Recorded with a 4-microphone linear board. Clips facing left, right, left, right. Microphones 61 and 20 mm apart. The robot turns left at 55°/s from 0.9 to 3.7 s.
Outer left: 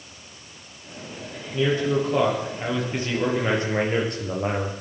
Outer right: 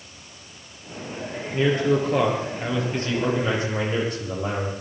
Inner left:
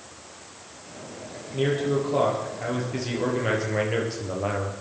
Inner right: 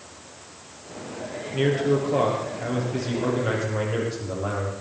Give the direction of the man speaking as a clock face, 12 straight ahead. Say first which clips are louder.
Outer right 1 dB, inner right 2 dB; 4 o'clock.